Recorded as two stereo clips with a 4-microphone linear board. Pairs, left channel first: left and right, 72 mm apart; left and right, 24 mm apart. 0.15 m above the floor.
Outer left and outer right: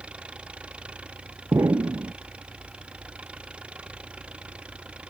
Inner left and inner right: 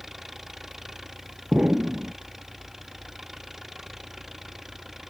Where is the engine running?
15° right (ahead or behind).